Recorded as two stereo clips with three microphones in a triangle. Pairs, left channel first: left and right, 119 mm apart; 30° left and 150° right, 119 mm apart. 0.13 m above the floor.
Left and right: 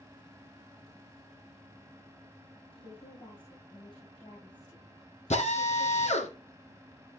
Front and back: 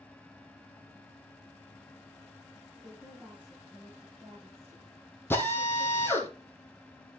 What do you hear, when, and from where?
2.7 s a woman speaking: 130° left, 5.5 m; by 6.3 s 150° left, 7 m
5.3 s a drill: 100° left, 3 m